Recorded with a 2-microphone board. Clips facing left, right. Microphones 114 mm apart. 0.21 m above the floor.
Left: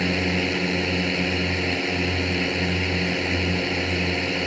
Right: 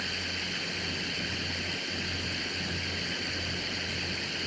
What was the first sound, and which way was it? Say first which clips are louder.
A drone: left 16 dB; 65° left (ahead or behind).